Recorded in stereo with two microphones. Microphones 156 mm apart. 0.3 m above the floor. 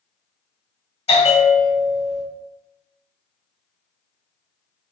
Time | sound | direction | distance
1.1 | a bell | 40° left (ahead or behind) | 1.3 m